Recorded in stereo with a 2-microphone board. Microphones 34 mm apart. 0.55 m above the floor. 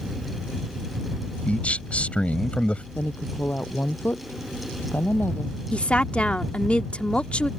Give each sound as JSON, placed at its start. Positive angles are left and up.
{"t": 1.5, "sound": "a man speaking", "side_deg": 40}
{"t": 3.0, "sound": "a woman speaking", "side_deg": 85}
{"t": 5.7, "sound": "a woman speaking", "side_deg": 40}